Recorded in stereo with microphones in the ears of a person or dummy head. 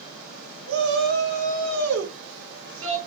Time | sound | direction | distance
0.7 | a shout | 65° right (ahead or behind) | 1.4 m